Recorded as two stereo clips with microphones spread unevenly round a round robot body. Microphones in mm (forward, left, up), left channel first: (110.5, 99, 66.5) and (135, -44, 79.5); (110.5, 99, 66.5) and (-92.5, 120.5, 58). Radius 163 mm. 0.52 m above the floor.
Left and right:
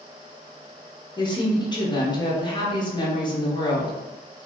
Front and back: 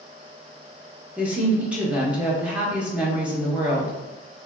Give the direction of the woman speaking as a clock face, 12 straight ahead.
9 o'clock.